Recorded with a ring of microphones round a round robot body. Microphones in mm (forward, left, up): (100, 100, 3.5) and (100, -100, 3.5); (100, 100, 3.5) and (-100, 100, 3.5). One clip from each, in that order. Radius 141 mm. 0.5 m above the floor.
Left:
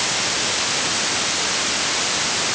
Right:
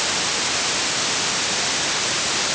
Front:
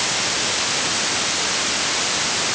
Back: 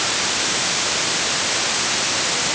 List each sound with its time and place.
Only background noise.